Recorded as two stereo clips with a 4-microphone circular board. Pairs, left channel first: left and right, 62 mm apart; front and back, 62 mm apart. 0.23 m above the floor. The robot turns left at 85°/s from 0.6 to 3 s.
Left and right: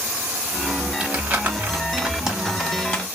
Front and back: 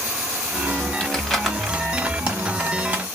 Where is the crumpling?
45° right, 1.2 m; by 3.1 s 145° left, 1.2 m.